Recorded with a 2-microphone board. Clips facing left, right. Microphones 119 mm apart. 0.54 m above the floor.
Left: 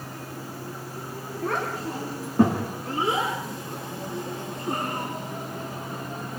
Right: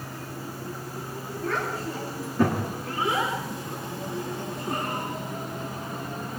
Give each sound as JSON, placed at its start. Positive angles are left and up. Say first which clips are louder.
{"t": 1.4, "sound": "a child speaking", "louder": "left 1 dB", "side_deg": 60, "distance_m": 4.5}